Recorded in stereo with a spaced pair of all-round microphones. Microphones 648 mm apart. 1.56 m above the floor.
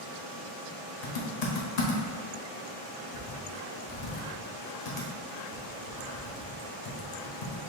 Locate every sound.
1.0 s typing on a keyboard: 85° left, 0.8 m